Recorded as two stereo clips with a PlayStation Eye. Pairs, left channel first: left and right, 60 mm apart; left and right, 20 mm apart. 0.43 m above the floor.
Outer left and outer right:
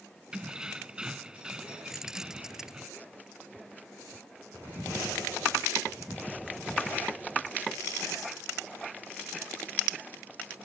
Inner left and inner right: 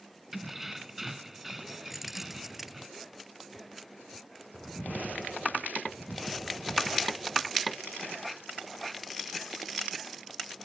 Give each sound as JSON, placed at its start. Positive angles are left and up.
{"t": 0.3, "sound": "keys jangling", "side_deg": -15}
{"t": 1.9, "sound": "keys jangling", "side_deg": -5}